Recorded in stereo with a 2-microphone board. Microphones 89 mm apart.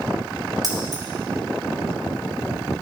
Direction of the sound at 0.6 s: 50° right (ahead or behind).